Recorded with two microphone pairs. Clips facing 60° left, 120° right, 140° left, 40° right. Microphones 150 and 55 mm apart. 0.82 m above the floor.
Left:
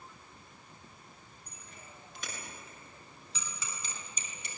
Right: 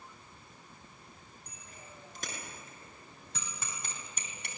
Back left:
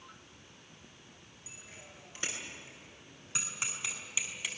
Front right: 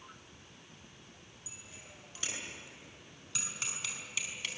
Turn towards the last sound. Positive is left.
turn(degrees=-140)